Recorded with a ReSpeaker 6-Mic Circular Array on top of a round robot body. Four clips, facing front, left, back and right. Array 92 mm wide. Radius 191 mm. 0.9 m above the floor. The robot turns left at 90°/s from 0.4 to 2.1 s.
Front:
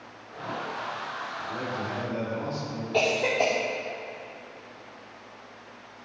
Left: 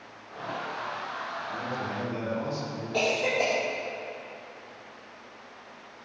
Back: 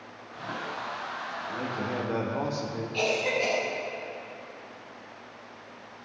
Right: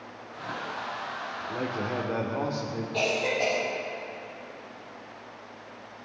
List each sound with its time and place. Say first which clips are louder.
1.4 s a man speaking: right 4 dB, even; 60° right, 3 m; by 2.8 s 125° right, 3 m
2.9 s a cough: left 2 dB, front 4 dB; 10° left, 3 m